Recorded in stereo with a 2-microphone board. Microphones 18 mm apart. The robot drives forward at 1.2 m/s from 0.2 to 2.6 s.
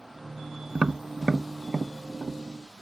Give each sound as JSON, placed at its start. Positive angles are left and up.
{"t": 0.8, "sound": "tapping", "side_deg": -50}